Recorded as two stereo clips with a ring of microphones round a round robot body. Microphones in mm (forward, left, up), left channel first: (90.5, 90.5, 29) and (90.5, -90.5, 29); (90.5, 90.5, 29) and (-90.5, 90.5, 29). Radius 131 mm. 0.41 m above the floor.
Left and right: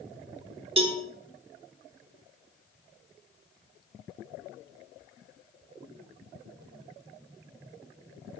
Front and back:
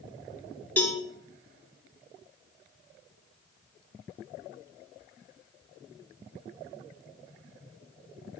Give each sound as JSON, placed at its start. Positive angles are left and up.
{"t": 0.8, "sound": "a cowbell", "azimuth_deg": -75, "distance_m": 1.2}